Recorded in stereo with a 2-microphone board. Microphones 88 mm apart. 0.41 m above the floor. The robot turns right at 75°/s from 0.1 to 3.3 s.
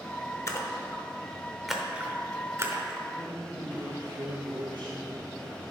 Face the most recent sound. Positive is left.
turn(degrees=-65)  # may be behind; listen again after turning